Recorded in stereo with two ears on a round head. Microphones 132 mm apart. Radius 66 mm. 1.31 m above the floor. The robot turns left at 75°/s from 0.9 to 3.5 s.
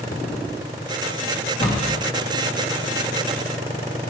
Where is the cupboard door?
50° left (ahead or behind), 1.9 m; by 2.0 s 20° left (ahead or behind), 1.9 m.